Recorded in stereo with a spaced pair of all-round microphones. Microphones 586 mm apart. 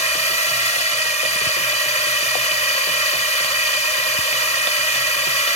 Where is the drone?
80° right.